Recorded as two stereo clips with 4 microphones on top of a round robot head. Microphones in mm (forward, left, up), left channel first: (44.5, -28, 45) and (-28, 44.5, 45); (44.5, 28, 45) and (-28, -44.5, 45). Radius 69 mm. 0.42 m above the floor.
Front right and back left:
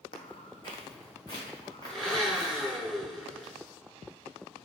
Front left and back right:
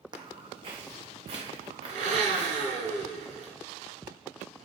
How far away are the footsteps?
About 1.0 m.